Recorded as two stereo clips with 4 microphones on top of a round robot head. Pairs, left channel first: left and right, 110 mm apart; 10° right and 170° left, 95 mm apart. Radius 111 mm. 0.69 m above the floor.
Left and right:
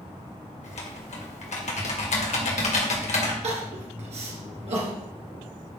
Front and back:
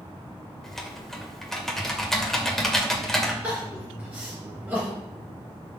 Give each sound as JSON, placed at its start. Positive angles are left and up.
{"t": 0.6, "sound": "typing on a keyboard", "azimuth_deg": 75, "distance_m": 2.0}
{"t": 3.4, "sound": "crying", "azimuth_deg": -115, "distance_m": 2.5}